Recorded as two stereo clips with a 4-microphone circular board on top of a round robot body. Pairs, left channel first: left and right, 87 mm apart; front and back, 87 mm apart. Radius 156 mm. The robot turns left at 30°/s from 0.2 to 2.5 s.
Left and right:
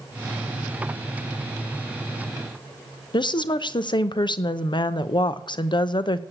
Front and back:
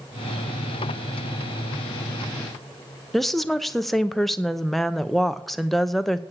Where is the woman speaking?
85° left, 1.0 m.